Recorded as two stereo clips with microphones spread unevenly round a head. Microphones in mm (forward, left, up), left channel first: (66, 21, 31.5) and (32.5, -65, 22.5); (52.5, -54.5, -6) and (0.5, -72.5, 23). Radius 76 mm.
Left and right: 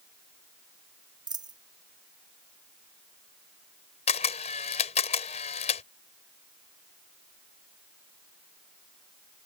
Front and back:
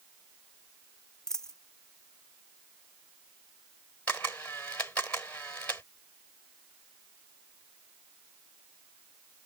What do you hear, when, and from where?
1.3 s a dropped coin: 70° right
4.1 s a camera shutter: 100° left